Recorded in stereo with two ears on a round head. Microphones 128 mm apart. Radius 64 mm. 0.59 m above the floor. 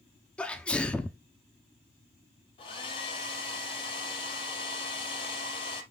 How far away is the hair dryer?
About 3 m.